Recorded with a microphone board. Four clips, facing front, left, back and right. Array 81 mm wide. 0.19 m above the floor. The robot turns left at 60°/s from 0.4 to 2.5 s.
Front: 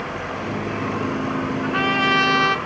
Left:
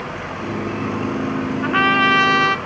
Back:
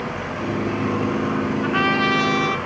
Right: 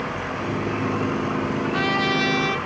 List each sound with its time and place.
1.6 s a trumpet: 105° left, 0.5 m; by 2.6 s 50° left, 0.5 m